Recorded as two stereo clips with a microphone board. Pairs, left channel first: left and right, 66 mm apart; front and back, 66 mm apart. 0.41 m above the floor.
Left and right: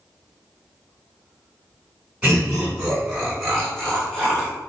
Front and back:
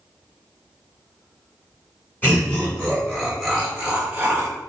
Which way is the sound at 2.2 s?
30° right.